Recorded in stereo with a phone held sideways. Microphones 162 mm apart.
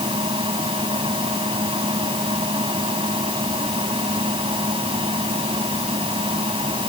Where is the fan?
35° right (ahead or behind).